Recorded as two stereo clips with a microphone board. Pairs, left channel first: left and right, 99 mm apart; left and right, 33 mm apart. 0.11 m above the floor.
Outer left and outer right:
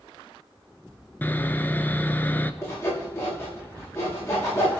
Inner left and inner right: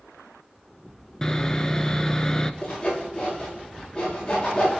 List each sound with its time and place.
1.2 s sawing: 20° left (ahead or behind), 0.7 m
2.6 s sawing: 30° left (ahead or behind), 9 m